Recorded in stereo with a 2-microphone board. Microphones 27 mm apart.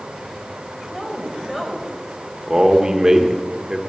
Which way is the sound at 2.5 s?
20° right (ahead or behind).